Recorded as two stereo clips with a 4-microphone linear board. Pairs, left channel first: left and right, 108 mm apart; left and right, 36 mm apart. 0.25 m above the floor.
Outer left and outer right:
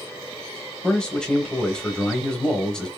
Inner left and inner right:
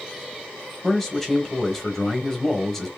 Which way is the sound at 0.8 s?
10° left (ahead or behind).